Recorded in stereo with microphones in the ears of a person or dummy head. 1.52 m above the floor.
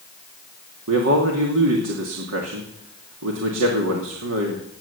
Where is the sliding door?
I don't hear a sliding door.